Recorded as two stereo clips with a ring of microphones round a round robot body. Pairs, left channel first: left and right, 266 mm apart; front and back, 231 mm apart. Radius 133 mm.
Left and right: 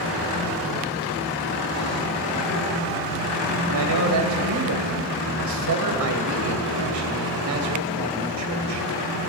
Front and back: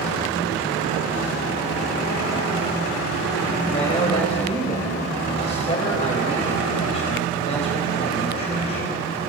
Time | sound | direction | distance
3.7 | a man speaking | 70° right | 3 m